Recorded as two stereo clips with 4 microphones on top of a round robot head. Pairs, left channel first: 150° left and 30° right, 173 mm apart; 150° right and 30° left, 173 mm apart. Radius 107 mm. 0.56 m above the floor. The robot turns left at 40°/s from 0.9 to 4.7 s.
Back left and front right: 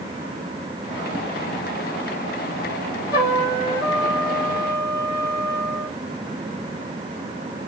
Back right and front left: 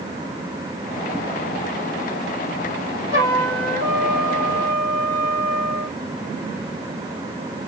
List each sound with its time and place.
3.1 s a trumpet: 45° left, 7 m; by 6.0 s 15° right, 7 m